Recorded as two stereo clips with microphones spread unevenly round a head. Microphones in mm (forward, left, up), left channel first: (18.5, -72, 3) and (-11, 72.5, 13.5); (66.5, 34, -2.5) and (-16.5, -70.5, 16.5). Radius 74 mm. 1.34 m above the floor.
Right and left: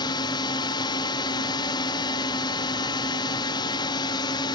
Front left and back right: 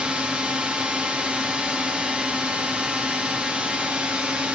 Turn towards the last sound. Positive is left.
turn(degrees=-40)